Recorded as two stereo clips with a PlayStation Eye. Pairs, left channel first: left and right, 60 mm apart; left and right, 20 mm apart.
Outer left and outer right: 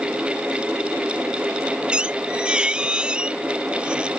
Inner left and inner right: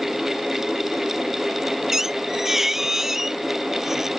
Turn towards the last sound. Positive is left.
turn(degrees=-15)  # may be behind; listen again after turning